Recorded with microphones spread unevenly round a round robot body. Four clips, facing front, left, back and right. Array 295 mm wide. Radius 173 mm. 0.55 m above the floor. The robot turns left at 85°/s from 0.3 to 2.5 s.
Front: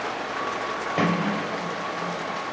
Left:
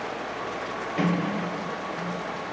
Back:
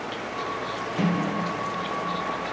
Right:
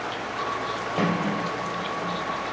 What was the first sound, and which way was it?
A sliding door, 35° right.